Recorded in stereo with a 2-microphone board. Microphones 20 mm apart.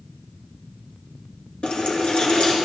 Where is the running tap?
50° left (ahead or behind), 2.5 m.